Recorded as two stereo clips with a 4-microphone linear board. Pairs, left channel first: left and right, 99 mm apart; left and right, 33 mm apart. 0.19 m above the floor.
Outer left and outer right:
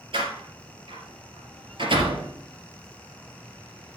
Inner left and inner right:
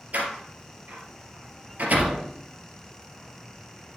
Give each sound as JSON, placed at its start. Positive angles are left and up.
{"t": 0.1, "sound": "a door slam", "side_deg": -60, "distance_m": 3.0}